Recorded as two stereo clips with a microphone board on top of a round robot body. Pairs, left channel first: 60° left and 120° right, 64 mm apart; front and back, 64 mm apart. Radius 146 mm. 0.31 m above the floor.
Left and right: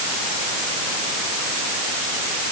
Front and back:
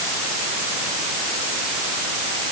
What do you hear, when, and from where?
Only background noise.